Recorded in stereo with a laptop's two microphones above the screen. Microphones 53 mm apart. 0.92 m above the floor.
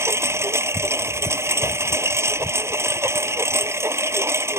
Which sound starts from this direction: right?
A lawn mower, at 0.0 s.